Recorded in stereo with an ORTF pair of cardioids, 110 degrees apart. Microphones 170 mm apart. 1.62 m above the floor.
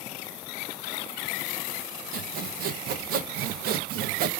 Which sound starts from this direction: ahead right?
Sawing, at 2.1 s.